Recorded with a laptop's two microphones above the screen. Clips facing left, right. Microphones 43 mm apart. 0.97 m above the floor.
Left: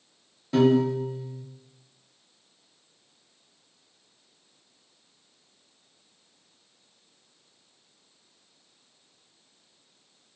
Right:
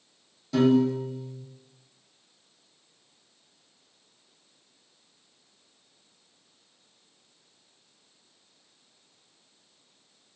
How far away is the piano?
About 0.5 m.